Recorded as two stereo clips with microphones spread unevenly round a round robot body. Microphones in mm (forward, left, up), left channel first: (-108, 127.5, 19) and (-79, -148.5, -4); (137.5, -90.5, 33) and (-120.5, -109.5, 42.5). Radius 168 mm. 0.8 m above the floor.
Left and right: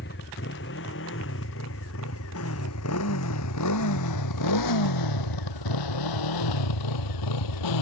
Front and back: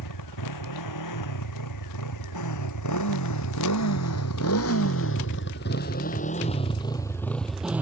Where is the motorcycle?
35° left; by 7.8 s 100° left.